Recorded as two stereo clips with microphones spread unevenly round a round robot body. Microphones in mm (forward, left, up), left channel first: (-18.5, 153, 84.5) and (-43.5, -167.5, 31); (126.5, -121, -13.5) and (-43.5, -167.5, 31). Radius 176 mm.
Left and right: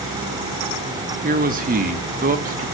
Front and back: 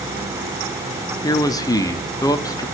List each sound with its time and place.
1.2 s a man speaking: 40° right, 1.6 m